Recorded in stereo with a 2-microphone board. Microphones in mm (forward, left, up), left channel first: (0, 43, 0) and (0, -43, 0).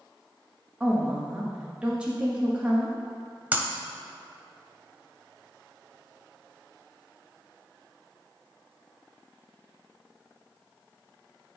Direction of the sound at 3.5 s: 20° right (ahead or behind).